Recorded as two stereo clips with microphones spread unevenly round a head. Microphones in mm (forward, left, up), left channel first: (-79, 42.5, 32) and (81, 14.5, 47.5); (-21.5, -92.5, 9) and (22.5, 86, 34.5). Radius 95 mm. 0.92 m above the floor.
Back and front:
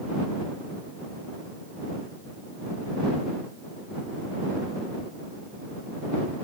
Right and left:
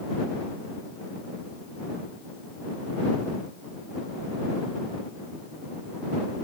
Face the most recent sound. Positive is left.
No sound to turn to.